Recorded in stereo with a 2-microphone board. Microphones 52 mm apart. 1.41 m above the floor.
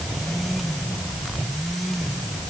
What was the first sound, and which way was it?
Only background noise.